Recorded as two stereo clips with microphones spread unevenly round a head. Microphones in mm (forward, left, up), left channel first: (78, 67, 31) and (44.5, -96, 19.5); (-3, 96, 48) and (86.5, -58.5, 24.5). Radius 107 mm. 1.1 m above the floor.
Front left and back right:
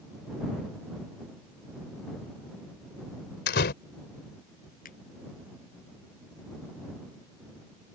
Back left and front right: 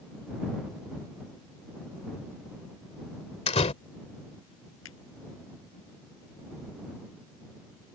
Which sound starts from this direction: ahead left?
A door slam, at 3.5 s.